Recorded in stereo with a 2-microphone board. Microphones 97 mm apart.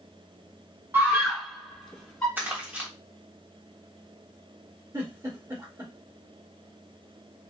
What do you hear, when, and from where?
0.9 s a scream: 25° right (ahead or behind), 1.2 m; by 2.3 s 15° left (ahead or behind), 1.3 m
2.4 s crumpling: 20° right (ahead or behind), 1.3 m
4.9 s a giggle: 35° right (ahead or behind), 1.5 m